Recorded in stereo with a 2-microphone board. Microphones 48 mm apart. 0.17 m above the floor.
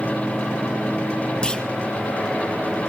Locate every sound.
1.4 s a clunk: 20° left (ahead or behind), 0.6 m